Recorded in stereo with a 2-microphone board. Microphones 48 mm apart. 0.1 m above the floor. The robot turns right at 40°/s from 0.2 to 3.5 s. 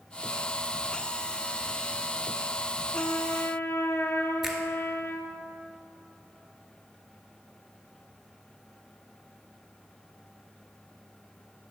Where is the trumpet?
40° left (ahead or behind), 0.9 m; by 5.4 s 55° left (ahead or behind), 0.9 m.